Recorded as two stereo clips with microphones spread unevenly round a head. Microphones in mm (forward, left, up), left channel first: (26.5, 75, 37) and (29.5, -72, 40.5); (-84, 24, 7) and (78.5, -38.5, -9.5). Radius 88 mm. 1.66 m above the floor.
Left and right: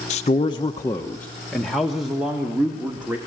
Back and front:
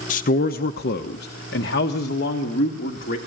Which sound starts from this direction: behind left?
A man speaking, at 0.1 s.